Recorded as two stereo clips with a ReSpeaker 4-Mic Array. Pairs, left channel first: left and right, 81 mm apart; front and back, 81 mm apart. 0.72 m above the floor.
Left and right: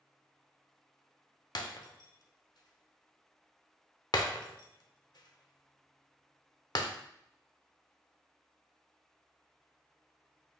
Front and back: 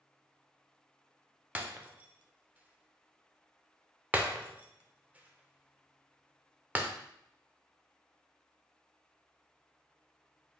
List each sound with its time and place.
1.6 s breaking glass: 115° left, 0.6 m